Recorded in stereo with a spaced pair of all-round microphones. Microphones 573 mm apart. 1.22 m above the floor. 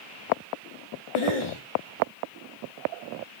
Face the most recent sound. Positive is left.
turn(degrees=60)  # may be behind; listen again after turning